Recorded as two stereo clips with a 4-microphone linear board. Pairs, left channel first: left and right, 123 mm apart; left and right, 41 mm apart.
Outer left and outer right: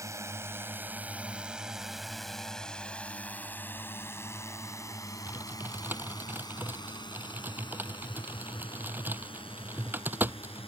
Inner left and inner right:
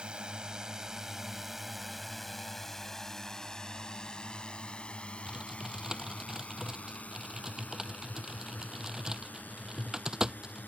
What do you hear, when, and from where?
0.0 s a drone: 25° right (ahead or behind); by 10.7 s 50° left (ahead or behind)
5.3 s typing on a keyboard: 15° right (ahead or behind)